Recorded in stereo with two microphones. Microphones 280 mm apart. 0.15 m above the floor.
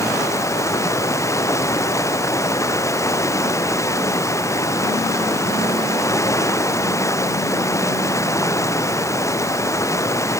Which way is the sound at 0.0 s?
10° left (ahead or behind).